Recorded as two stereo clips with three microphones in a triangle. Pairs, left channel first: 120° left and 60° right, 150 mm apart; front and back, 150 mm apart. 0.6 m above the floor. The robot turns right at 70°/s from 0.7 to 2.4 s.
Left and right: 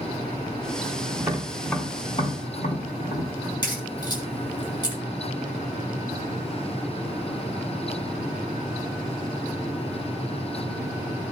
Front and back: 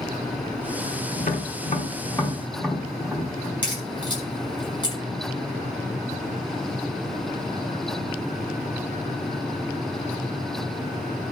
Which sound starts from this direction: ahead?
Tapping, at 1.2 s.